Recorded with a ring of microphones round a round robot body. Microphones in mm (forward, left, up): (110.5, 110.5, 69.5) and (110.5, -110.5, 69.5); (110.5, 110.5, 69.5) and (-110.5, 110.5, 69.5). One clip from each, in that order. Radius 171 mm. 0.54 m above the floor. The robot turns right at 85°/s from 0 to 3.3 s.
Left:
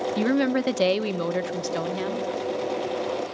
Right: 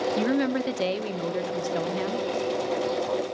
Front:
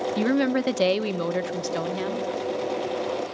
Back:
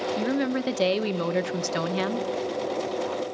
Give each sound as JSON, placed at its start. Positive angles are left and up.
{"t": 0.2, "sound": "a woman speaking", "azimuth_deg": 15, "distance_m": 1.0}